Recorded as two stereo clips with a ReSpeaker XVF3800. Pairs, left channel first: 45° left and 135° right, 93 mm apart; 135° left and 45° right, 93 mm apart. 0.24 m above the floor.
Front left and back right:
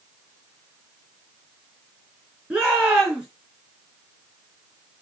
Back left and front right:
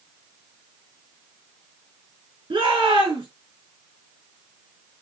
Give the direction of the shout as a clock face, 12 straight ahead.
2 o'clock.